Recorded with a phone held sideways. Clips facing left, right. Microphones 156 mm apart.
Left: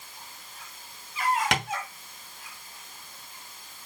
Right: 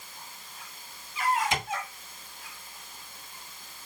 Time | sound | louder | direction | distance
1.5 | tapping | left 2 dB | 80° left | 2 m